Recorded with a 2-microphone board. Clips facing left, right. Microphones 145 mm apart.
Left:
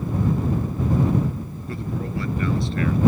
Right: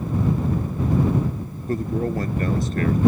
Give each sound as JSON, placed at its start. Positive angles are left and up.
{"t": 1.7, "sound": "a man speaking", "side_deg": -45}